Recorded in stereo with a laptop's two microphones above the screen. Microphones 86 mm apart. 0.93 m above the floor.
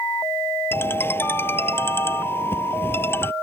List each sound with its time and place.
0.7 s a ringtone: 25° left (ahead or behind)